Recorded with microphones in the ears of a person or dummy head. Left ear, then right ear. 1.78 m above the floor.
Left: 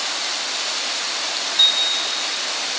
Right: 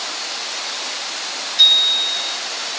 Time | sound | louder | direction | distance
1.6 | a bicycle bell | right 5 dB | 10° right (ahead or behind) | 5.5 m